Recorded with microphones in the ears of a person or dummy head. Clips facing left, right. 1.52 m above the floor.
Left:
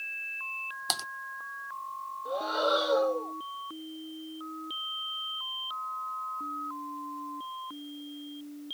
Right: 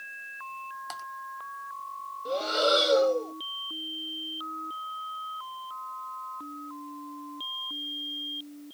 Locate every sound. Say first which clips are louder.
0.9 s typing on a keyboard: left 8 dB; 50° left (ahead or behind)
2.2 s breathing: right 3 dB; 30° right (ahead or behind)